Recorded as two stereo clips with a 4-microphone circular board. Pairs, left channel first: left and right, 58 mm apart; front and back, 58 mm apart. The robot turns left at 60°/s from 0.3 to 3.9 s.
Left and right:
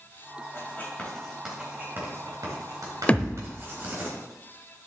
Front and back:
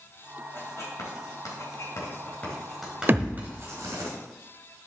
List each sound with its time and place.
0.5 s writing: 45° left, 3.5 m; by 4.1 s 155° right, 3.5 m
3.1 s a thud: 150° left, 0.6 m; by 3.5 s 125° left, 0.6 m